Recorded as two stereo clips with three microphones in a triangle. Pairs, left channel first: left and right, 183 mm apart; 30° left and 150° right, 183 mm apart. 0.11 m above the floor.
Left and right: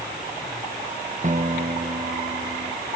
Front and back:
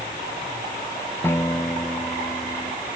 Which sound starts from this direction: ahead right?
A guitar, at 1.2 s.